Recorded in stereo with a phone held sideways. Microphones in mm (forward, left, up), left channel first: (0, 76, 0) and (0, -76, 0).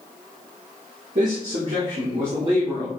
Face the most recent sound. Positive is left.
turn(degrees=-30)  # may be behind; listen again after turning